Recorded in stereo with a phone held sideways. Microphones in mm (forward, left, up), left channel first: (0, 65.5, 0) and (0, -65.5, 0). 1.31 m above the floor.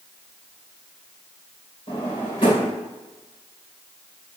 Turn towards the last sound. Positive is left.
turn(degrees=40)  # may be behind; listen again after turning